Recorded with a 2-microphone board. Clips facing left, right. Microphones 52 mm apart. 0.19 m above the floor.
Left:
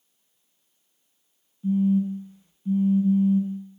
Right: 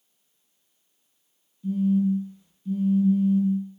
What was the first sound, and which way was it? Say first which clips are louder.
A phone buzzing: even; 30° left (ahead or behind).